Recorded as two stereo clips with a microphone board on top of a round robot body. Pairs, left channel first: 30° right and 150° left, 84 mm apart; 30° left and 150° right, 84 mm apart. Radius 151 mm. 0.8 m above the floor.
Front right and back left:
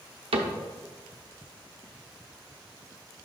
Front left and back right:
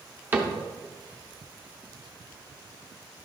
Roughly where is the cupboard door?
Behind left.